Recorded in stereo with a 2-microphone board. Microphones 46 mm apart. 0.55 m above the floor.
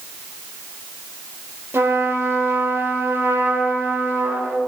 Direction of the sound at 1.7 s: 65° right (ahead or behind).